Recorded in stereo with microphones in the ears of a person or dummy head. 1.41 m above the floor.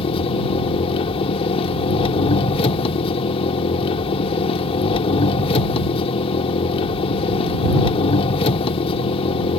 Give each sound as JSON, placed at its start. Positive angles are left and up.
{"t": 0.0, "sound": "an engine running", "side_deg": 30}